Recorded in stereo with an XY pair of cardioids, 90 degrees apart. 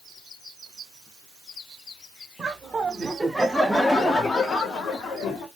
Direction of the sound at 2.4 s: 40° right.